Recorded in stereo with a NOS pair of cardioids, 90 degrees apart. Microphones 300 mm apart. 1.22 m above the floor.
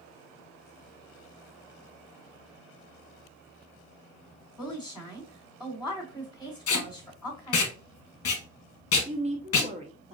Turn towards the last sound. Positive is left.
turn(degrees=-20)